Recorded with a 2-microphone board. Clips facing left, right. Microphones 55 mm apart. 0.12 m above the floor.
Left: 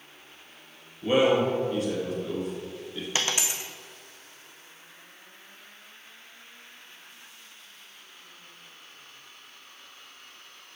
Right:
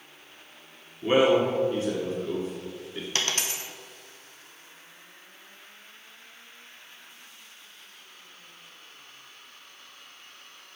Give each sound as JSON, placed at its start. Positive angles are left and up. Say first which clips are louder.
{"t": 1.0, "sound": "a man speaking", "louder": "right 1 dB", "side_deg": -30, "distance_m": 1.9}
{"t": 3.1, "sound": "a dropped coin", "louder": "left 1 dB", "side_deg": 10, "distance_m": 0.8}